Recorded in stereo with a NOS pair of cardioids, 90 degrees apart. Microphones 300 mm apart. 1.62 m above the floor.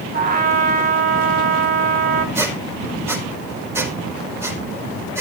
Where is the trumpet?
30° right, 2 m.